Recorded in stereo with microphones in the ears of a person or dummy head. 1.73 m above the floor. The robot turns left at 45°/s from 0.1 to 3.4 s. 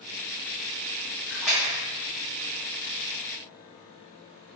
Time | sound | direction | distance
1.3 | a splash | 5° right (ahead or behind) | 0.8 m